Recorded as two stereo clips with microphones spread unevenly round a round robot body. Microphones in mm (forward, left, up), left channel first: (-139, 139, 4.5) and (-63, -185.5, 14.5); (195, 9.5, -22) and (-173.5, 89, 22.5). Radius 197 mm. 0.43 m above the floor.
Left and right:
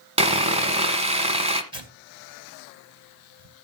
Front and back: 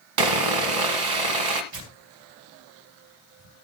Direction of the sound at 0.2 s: 150° right.